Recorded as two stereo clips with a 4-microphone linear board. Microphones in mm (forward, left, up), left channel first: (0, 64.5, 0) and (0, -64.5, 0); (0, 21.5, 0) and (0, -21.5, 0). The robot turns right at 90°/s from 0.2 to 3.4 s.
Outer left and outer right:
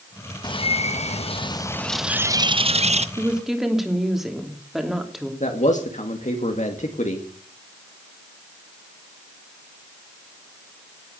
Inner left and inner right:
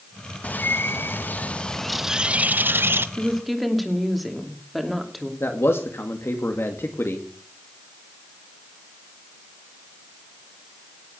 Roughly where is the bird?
Ahead left.